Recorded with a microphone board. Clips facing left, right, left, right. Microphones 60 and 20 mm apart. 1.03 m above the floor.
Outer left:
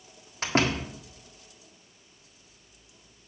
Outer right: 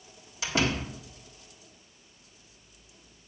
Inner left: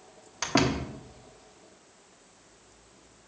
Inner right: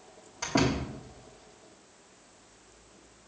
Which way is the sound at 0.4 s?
50° left (ahead or behind).